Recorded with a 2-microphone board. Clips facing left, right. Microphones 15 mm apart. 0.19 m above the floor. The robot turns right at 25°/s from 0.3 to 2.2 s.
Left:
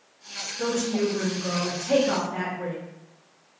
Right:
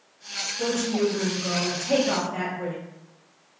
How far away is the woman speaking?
About 1.3 m.